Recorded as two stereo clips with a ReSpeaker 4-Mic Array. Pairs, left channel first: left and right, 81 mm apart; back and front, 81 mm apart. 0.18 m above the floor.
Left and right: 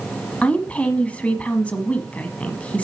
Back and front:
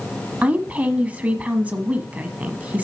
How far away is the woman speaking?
About 1.1 m.